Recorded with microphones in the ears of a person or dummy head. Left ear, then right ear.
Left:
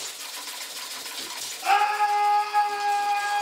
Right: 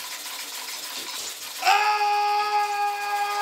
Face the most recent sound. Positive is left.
turn(degrees=10)  # may be behind; listen again after turning